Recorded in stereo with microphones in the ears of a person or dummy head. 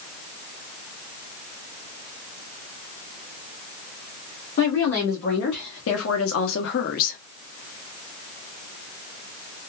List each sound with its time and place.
4.6 s a woman speaking: 65° left (ahead or behind), 1.6 m; by 7.2 s 40° left (ahead or behind), 0.7 m